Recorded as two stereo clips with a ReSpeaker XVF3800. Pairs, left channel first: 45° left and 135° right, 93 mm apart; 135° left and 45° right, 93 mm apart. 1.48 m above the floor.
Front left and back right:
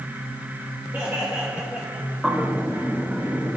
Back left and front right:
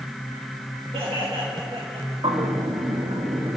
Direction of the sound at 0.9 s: 65° right.